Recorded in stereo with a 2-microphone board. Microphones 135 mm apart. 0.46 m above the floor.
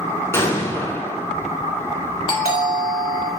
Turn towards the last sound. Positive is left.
turn(degrees=40)  # may be behind; listen again after turning